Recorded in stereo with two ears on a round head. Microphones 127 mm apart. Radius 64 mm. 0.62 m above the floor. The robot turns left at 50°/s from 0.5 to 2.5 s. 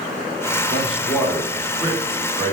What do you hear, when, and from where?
0.7 s a man speaking: 40° left, 2.5 m; by 2.5 s 50° right, 2.5 m